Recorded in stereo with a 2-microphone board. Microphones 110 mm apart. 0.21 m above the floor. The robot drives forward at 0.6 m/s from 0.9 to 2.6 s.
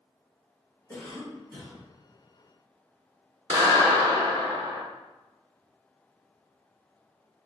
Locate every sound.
0.9 s a cough: 20° left (ahead or behind), 2.0 m; by 1.8 s 15° left (ahead or behind), 2.5 m
3.5 s a clap: 40° right (ahead or behind), 1.5 m